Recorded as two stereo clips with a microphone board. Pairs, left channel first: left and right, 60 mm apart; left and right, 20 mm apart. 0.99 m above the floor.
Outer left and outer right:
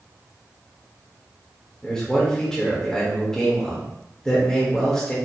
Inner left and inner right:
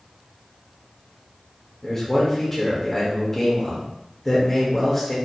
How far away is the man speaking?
About 1.7 m.